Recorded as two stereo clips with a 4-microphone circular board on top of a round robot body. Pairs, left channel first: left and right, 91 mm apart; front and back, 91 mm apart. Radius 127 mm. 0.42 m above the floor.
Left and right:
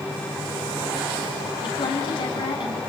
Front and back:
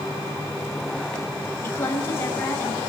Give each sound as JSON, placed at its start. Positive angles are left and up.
{"t": 1.6, "sound": "a woman speaking", "azimuth_deg": 65, "distance_m": 5.5}